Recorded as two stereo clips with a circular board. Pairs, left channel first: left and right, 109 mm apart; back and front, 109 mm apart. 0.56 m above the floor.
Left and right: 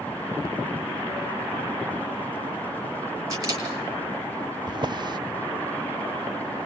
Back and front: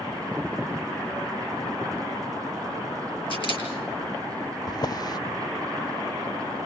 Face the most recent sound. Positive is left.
turn(degrees=-130)